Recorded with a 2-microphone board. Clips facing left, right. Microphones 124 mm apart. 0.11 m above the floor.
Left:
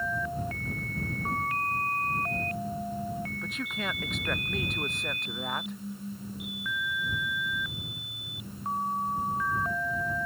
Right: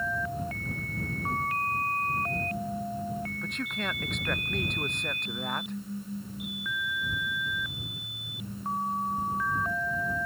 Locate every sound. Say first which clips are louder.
3.4 s a man speaking: right 1 dB; centre (ahead or behind)